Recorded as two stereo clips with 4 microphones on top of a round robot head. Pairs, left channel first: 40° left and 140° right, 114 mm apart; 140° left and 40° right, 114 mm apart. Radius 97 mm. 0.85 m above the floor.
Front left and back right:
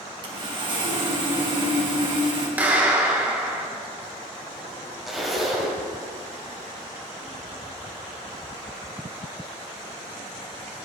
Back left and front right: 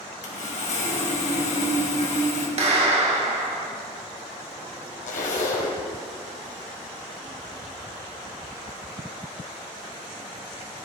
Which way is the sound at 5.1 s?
130° left.